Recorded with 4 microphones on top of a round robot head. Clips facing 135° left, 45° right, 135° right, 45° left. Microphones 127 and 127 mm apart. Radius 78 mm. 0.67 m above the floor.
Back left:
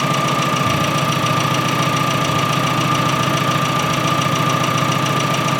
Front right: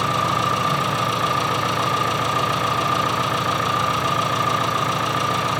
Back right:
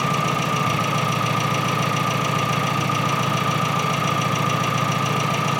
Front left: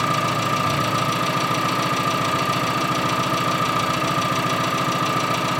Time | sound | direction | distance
0.0 | an engine running | 155° left | 4 m